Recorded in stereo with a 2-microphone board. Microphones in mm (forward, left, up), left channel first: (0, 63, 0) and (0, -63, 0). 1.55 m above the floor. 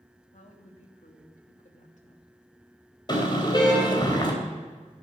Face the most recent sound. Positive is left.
turn(degrees=35)  # may be behind; listen again after turning